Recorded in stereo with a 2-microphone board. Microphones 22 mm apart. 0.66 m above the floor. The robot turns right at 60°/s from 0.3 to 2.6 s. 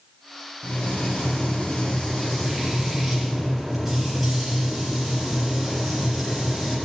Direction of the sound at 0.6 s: 65° left.